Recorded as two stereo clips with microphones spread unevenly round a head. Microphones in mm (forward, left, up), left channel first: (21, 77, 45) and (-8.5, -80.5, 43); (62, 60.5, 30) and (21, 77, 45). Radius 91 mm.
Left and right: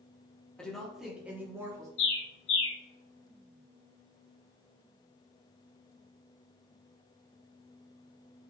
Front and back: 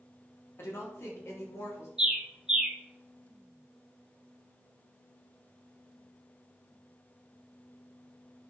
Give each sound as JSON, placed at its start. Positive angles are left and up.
{"t": 0.6, "sound": "a woman speaking", "azimuth_deg": -5, "distance_m": 3.0}
{"t": 2.0, "sound": "a bird", "azimuth_deg": 90, "distance_m": 2.5}